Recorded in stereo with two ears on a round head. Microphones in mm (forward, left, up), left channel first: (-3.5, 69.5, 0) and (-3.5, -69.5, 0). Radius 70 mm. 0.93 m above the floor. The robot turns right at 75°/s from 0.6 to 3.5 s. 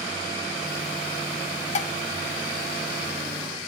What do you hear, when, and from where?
1.8 s dishes clattering: 45° left (ahead or behind), 0.7 m; by 1.9 s 60° left (ahead or behind), 0.7 m